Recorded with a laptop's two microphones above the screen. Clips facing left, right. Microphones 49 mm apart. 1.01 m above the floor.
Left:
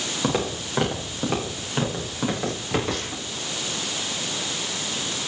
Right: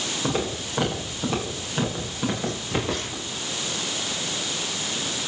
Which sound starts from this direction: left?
Footsteps, at 0.2 s.